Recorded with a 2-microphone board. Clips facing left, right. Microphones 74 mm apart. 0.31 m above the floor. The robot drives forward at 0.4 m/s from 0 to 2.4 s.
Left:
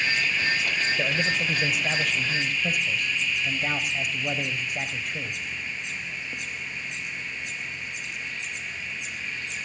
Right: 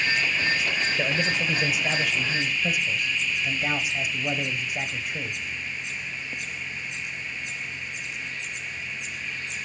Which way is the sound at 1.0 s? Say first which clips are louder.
Even; 5° right (ahead or behind).